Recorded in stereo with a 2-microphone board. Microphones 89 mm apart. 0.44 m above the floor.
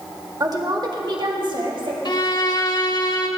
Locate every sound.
0.4 s a woman speaking: 40° right (ahead or behind), 1.3 m; by 1.9 s 65° right (ahead or behind), 2.5 m
2.0 s a violin: 55° left (ahead or behind), 0.9 m